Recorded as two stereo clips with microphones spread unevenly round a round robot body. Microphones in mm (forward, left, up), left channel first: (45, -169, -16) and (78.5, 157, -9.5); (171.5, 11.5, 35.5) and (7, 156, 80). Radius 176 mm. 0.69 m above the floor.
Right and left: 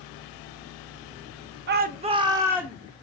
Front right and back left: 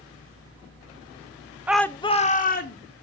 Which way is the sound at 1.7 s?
45° left.